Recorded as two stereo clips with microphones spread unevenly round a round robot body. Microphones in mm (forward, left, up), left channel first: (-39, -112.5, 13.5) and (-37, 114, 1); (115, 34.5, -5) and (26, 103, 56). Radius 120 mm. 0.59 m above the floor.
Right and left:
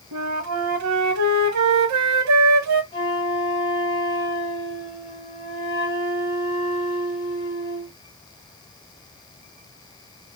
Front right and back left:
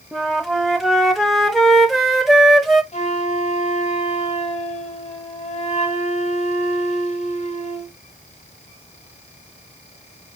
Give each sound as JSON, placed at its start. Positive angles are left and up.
{"t": 0.1, "sound": "a flute", "azimuth_deg": 60, "distance_m": 1.0}
{"t": 2.9, "sound": "a flute", "azimuth_deg": -20, "distance_m": 1.5}